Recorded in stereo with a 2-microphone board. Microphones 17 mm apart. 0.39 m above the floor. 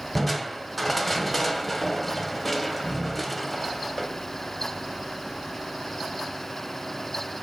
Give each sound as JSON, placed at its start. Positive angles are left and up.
{"t": 0.1, "sound": "crushing", "side_deg": 5, "distance_m": 1.8}